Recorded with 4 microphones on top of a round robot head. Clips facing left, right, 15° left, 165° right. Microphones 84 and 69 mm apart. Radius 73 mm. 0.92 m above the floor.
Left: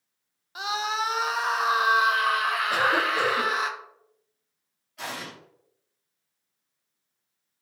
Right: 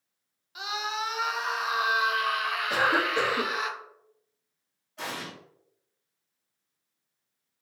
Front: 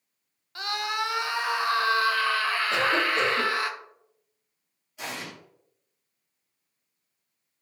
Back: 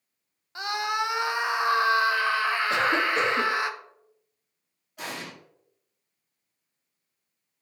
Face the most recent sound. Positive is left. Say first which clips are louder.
# even, even
turn(degrees=-145)